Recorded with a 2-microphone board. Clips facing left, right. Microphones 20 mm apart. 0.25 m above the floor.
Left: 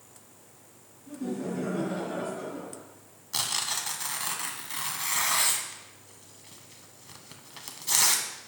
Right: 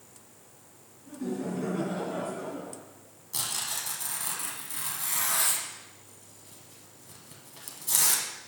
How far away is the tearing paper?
About 1.0 m.